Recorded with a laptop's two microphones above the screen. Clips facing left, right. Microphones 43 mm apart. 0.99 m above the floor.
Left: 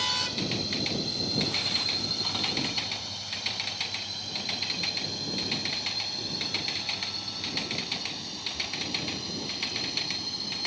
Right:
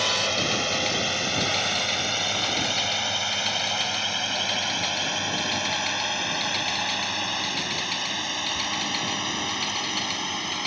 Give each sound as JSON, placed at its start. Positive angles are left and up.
{"t": 0.0, "sound": "a drone", "side_deg": -65}